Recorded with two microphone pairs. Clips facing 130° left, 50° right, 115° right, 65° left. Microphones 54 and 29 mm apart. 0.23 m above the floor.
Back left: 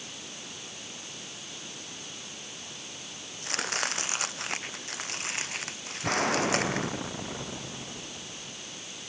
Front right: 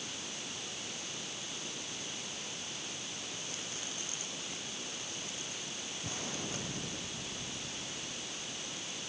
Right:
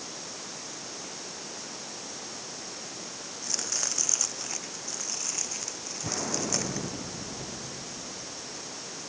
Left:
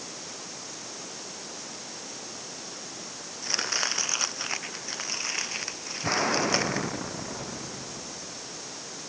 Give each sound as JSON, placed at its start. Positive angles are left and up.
{"t": 3.4, "sound": "chopping", "azimuth_deg": 115}
{"t": 6.0, "sound": "an explosion", "azimuth_deg": 100}